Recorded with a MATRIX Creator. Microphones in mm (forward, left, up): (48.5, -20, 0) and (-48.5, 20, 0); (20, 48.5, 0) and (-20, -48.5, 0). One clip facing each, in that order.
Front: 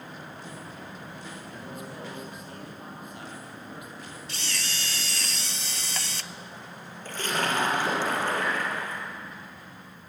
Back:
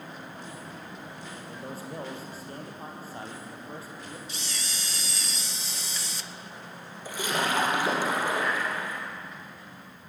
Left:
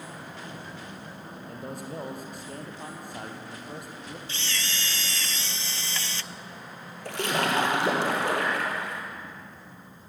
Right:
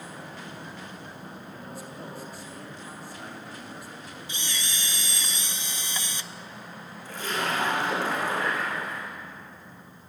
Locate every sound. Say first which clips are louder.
1.5 s a man speaking: back 3 dB, left 8 dB; 100° left, 4.5 m
4.3 s a camera shutter: front 3 dB, left 1 dB; 40° right, 0.5 m
7.0 s a splash: even, left 3 dB; 80° left, 4.5 m